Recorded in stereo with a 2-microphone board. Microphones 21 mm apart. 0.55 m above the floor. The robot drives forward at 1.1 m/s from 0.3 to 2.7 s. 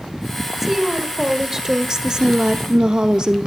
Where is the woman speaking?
15° right (ahead or behind), 2.5 m; by 3.5 s 40° right (ahead or behind), 0.9 m.